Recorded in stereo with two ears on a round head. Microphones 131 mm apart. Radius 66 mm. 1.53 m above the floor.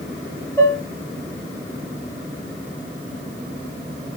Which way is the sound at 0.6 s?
15° left (ahead or behind).